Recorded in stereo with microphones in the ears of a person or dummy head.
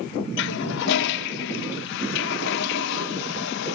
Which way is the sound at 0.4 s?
65° left (ahead or behind).